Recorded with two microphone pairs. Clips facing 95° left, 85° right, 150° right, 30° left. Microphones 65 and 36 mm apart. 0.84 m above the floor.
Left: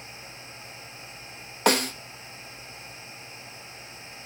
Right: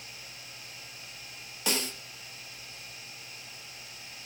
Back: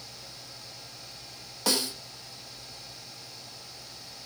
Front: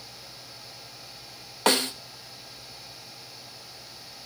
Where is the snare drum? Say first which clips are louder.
Left 10 dB, front 6 dB; 70° left, 0.8 m.